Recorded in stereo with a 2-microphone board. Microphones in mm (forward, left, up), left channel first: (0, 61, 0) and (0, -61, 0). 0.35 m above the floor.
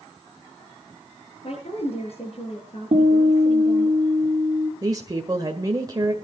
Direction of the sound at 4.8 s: 30° right (ahead or behind).